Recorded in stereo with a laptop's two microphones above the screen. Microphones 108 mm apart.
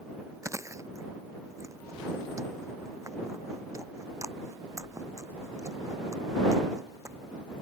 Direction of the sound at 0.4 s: 30° right (ahead or behind).